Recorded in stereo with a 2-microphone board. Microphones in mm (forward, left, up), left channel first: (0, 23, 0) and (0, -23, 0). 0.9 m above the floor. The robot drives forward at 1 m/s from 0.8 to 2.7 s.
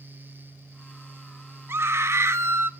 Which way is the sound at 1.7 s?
60° right (ahead or behind).